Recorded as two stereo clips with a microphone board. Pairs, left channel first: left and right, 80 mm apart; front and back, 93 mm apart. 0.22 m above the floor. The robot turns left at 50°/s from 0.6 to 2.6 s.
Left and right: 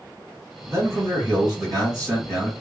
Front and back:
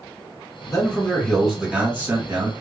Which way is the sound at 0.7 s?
50° right.